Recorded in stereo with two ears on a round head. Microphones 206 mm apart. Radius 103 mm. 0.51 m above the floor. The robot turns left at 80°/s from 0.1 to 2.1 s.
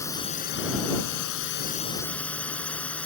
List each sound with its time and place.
0.0 s a drone: 165° left; by 3.1 s 5° left